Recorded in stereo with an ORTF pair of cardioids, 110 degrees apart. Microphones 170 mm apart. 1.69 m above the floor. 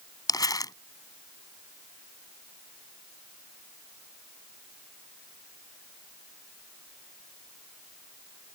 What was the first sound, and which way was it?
Crumpling, 25° left.